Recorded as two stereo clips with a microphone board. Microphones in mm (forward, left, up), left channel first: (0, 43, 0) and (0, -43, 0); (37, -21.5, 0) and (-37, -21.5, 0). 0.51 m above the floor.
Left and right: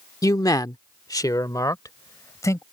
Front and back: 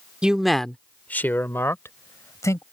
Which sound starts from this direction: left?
A man speaking, at 0.2 s.